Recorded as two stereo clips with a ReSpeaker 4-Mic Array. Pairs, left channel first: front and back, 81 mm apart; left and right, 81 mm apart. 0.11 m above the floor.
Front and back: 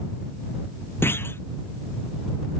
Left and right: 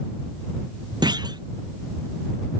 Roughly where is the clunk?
Ahead right.